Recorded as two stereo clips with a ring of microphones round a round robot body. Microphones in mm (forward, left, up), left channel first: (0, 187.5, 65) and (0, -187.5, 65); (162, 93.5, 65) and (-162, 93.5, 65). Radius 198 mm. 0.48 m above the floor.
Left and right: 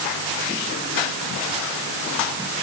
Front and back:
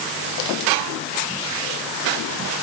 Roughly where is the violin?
No violin in this recording.